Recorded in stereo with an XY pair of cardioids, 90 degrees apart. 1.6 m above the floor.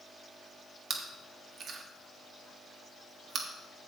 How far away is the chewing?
About 1.4 m.